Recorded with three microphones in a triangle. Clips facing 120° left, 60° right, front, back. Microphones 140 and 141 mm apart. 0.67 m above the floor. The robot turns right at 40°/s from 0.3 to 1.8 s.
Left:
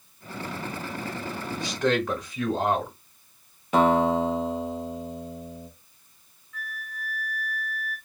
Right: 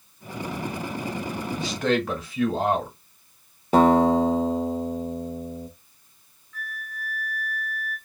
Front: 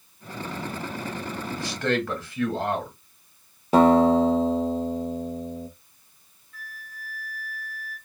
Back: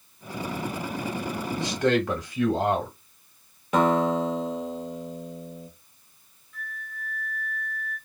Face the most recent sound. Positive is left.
turn(degrees=45)